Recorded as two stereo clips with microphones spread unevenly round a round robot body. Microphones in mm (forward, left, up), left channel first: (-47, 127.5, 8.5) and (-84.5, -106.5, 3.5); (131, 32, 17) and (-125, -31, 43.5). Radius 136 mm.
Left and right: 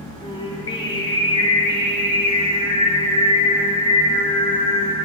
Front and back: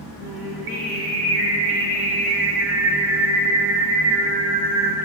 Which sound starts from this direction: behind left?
Singing, at 0.2 s.